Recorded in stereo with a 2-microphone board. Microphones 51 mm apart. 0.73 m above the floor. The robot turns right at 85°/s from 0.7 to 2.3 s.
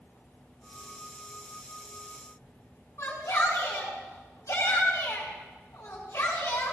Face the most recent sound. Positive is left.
turn(degrees=65)  # may be behind; listen again after turning